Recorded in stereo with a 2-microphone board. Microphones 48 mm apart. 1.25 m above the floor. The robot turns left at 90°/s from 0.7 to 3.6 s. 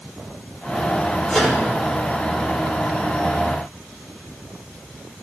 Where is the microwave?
10° left (ahead or behind), 4.5 m; by 1.6 s 15° right (ahead or behind), 4.5 m.